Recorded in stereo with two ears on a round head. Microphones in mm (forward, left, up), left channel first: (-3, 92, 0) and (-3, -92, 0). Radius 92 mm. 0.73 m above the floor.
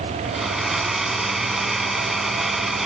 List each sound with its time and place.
0.2 s a blender: centre (ahead or behind)